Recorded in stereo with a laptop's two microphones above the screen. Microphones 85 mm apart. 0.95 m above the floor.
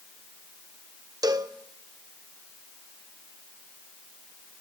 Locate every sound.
1.2 s a cowbell: 45° right (ahead or behind), 0.7 m